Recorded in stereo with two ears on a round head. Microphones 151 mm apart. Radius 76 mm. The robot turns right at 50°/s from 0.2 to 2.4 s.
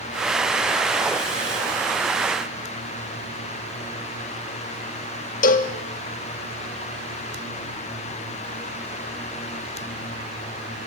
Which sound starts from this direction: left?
A cowbell, at 5.4 s.